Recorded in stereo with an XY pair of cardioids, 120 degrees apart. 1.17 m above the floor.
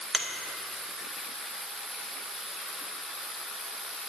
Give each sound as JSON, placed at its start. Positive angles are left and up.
{"t": 0.1, "sound": "a finger snap", "azimuth_deg": -15, "distance_m": 1.2}